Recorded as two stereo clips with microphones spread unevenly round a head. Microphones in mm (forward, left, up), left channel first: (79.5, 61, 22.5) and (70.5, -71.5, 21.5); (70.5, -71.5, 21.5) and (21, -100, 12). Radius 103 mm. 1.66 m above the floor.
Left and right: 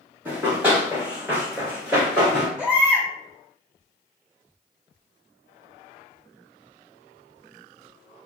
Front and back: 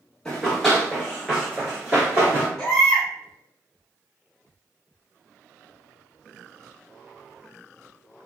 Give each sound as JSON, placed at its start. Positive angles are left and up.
{"t": 0.2, "sound": "running footsteps", "azimuth_deg": -30, "distance_m": 1.8}
{"t": 2.6, "sound": "a baby crying", "azimuth_deg": -20, "distance_m": 1.2}